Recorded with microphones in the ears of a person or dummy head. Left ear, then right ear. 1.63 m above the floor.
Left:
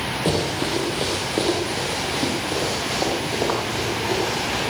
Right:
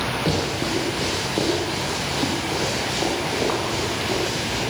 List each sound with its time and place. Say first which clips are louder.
0.2 s running footsteps: left 1 dB; 25° left (ahead or behind), 3.5 m; by 4.6 s 15° left (ahead or behind), 5.5 m